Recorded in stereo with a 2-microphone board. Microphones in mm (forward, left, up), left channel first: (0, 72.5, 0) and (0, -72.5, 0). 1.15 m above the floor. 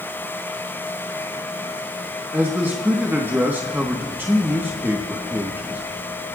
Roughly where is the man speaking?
Centre.